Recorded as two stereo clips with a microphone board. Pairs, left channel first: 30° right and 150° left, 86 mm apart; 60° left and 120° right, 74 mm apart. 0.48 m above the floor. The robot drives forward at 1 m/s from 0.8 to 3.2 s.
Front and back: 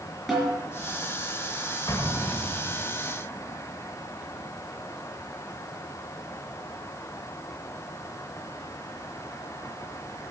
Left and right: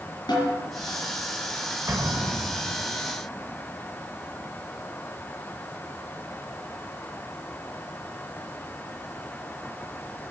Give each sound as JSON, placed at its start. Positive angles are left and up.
{"t": 0.3, "sound": "a snare drum", "azimuth_deg": 60, "distance_m": 5.5}
{"t": 1.9, "sound": "an explosion", "azimuth_deg": -75, "distance_m": 1.9}